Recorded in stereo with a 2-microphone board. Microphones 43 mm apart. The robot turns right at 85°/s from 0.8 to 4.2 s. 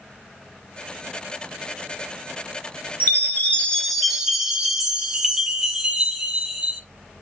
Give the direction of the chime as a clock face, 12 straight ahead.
9 o'clock.